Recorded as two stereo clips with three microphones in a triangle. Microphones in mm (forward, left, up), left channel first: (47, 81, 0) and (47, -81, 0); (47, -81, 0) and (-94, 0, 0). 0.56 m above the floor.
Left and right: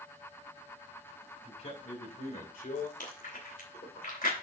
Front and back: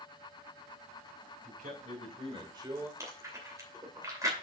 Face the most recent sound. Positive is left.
turn(degrees=85)